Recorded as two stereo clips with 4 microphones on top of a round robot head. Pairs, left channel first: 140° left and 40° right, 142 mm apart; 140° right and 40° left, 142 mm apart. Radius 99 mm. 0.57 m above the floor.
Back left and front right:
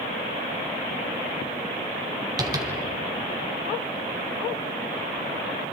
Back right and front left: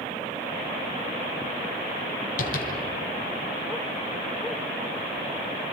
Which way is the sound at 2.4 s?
105° right.